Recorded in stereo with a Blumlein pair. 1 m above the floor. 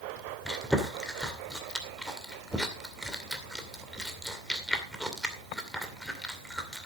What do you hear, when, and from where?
0.5 s chewing: straight ahead, 2.5 m